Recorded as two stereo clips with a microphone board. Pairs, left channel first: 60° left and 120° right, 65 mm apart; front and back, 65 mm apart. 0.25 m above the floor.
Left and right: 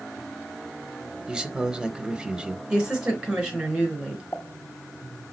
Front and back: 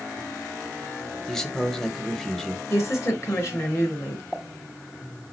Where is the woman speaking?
45° right, 4 m.